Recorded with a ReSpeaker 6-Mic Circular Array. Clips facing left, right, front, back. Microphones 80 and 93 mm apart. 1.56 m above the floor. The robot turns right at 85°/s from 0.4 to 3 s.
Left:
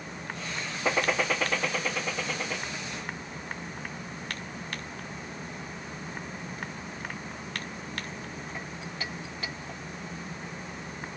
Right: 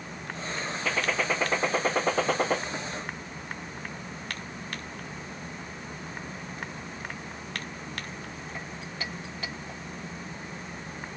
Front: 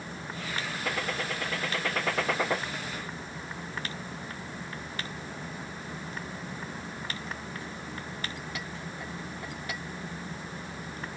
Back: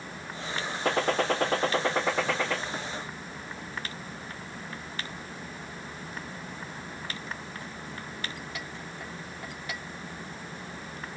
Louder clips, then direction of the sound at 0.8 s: Left 2 dB, back 9 dB; 150° left.